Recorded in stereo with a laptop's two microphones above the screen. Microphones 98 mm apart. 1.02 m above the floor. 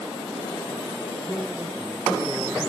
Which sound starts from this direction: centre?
A man speaking, at 1.2 s.